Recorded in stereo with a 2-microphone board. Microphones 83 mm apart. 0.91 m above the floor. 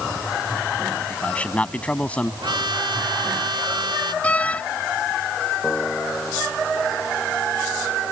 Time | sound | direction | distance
1.1 | a man speaking | 15° left (ahead or behind) | ?
2.4 | a trumpet | 70° right (ahead or behind) | ?
4.2 | a door slam | 15° left (ahead or behind) | ?
5.6 | a piano | 10° left (ahead or behind) | ?